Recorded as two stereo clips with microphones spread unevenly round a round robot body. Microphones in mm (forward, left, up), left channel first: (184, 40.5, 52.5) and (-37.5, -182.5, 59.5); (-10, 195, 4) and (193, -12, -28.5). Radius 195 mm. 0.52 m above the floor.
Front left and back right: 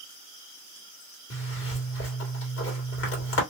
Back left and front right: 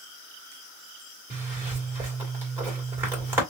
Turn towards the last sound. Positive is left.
turn(degrees=30)